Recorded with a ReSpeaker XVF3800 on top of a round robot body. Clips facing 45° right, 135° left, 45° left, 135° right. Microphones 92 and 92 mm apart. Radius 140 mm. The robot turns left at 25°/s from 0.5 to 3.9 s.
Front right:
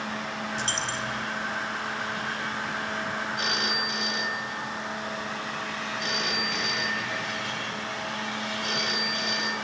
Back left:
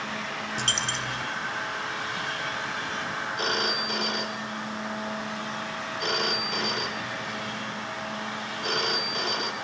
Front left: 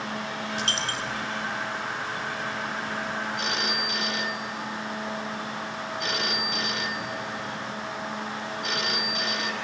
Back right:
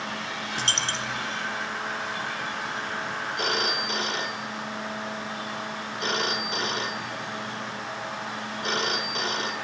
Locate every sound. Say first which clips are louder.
0.6 s a dropped coin: even, back right 1 dB; 170° left, 1.4 m; by 1.2 s 155° left, 1.4 m
3.4 s a phone ringing: back left 1 dB, back right 2 dB; 175° right, 2 m; by 9.5 s 170° left, 2 m